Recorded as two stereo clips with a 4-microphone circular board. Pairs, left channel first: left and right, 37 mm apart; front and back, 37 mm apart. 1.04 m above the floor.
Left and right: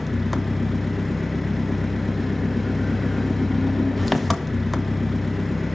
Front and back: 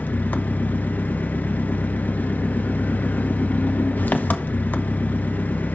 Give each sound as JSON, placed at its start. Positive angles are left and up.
{"t": 0.0, "sound": "an engine running", "azimuth_deg": 5, "distance_m": 0.9}